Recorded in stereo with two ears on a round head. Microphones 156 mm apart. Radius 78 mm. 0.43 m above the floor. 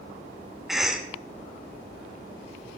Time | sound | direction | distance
0.7 | a cough | centre (ahead or behind) | 0.8 m